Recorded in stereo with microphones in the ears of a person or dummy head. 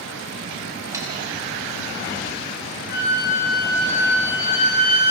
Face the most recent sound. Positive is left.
turn(degrees=80)